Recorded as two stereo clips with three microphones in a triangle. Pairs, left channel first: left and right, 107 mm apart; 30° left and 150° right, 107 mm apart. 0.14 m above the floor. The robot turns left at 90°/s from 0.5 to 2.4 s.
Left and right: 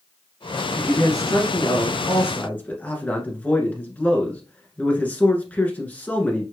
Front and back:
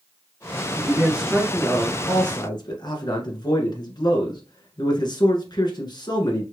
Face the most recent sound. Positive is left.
turn(degrees=20)